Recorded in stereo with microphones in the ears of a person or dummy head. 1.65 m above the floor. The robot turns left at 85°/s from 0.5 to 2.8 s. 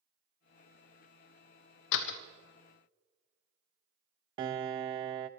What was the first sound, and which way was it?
A door slam, 70° left (ahead or behind).